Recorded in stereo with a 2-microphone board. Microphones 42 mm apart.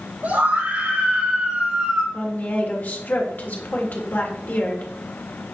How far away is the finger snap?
I don't hear a finger snap.